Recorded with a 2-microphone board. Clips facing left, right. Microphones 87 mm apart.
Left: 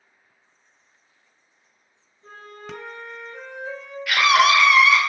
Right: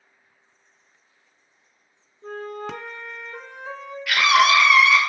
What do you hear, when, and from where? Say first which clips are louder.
2.2 s a flute: right 9 dB; 70° right (ahead or behind), 0.5 m
4.1 s a scream: even; 10° left (ahead or behind), 0.9 m